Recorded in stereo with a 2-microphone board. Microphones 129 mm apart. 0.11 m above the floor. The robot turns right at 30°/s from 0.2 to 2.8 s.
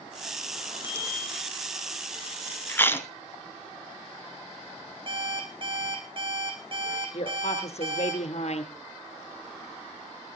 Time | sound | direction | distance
0.8 | a bicycle bell | 15° right (ahead or behind) | 3 m
2.7 | chewing | 15° left (ahead or behind) | 1.1 m
5.1 | an alarm clock | 40° right (ahead or behind) | 2.5 m
7.1 | a woman speaking | 55° left (ahead or behind) | 2 m